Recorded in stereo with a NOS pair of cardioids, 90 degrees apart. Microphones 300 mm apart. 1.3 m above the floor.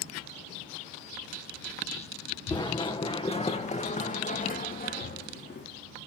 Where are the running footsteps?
15° left, 5 m; by 5.7 s 35° left, 5.5 m.